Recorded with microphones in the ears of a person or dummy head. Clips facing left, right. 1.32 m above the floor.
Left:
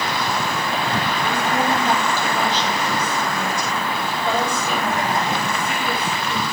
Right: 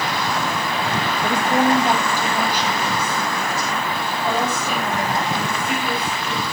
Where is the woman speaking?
25° right (ahead or behind), 1.5 m; by 6.4 s centre (ahead or behind), 5.5 m.